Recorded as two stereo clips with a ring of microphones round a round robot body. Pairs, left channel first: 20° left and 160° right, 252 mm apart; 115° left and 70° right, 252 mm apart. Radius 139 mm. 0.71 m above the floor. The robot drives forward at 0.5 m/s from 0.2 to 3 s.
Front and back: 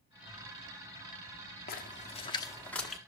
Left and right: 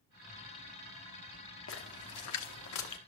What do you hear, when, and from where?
1.7 s a splash: 75° left, 1.0 m; by 3.0 s 115° left, 1.1 m